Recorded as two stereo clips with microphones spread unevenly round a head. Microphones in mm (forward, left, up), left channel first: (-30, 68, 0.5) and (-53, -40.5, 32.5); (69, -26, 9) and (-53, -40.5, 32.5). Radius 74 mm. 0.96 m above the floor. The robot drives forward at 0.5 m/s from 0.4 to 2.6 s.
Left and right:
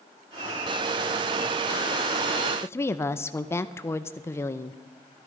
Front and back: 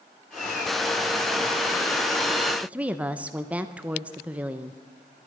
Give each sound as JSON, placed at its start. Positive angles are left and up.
{"t": 2.6, "sound": "a woman speaking", "azimuth_deg": 100, "distance_m": 0.6}